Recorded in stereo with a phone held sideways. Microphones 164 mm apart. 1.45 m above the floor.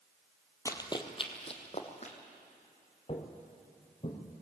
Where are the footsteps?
35° left (ahead or behind), 2.0 m; by 4.2 s 40° left (ahead or behind), 3 m.